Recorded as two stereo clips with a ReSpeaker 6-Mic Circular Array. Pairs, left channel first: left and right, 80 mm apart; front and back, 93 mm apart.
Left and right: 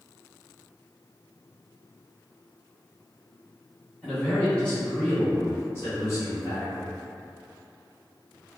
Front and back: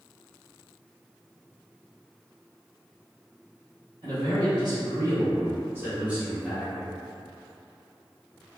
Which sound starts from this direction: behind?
A man speaking, at 4.0 s.